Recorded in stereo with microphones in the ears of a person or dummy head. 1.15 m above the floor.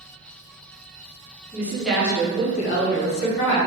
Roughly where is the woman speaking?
Centre.